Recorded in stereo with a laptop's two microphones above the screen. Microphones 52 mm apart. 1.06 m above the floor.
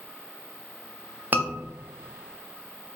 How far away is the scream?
About 0.5 m.